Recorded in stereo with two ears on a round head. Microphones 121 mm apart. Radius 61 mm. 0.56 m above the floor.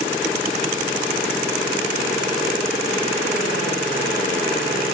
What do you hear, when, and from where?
Only background noise.